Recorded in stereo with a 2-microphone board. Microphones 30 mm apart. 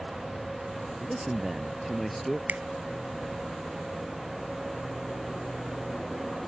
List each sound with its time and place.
1.0 s a man speaking: 15° right (ahead or behind); by 2.4 s 5° left (ahead or behind)
2.5 s a finger snap: 60° right (ahead or behind)